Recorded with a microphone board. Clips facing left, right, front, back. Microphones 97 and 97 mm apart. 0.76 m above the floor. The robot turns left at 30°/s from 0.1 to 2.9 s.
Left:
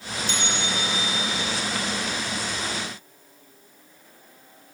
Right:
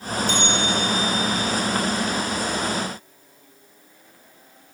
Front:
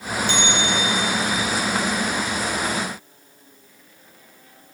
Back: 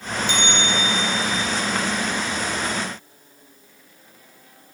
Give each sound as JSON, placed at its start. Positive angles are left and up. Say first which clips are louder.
{"t": 0.3, "sound": "a bell", "louder": "right 5 dB, front 1 dB", "azimuth_deg": 110, "distance_m": 1.7}